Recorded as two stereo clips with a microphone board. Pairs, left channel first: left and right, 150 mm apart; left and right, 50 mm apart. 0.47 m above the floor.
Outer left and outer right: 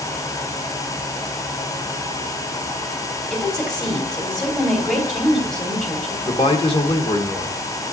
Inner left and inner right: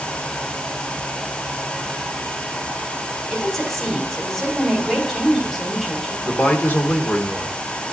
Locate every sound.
3.3 s a woman speaking: 5° left (ahead or behind), 3 m
6.2 s a man speaking: 40° left (ahead or behind), 1.3 m